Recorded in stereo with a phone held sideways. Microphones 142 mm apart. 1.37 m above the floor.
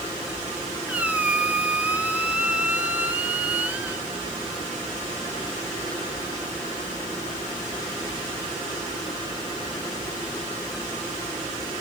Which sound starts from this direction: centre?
A squeak, at 0.9 s.